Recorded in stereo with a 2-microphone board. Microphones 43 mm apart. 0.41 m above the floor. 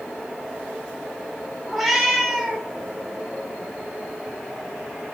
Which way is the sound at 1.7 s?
5° right (ahead or behind).